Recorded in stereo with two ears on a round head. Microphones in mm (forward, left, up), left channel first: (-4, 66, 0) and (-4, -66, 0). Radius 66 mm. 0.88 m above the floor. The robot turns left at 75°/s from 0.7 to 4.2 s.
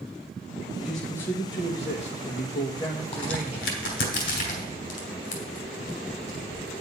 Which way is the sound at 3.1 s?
45° left (ahead or behind).